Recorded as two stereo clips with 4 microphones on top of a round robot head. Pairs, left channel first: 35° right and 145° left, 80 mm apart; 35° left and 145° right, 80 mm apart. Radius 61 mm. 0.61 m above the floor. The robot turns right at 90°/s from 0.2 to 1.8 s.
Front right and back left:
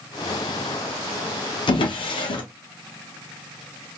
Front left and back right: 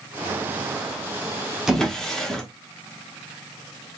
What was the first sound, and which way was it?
A drawer, 60° right.